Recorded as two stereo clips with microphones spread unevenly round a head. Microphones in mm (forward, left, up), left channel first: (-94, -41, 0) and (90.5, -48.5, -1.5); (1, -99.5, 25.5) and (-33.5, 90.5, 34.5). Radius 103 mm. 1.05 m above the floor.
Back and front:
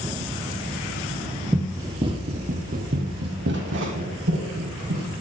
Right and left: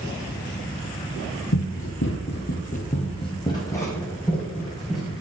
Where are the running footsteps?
80° right, 1.7 m; by 5.1 s 10° left, 3.5 m.